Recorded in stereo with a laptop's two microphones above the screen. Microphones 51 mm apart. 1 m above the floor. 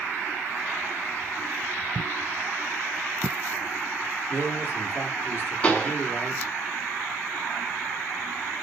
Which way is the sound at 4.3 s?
45° left (ahead or behind).